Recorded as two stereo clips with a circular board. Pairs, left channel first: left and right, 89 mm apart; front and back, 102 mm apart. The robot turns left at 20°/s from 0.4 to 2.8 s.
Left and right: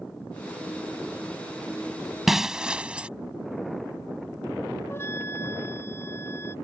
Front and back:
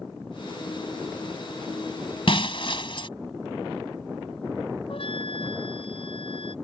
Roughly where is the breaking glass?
Ahead.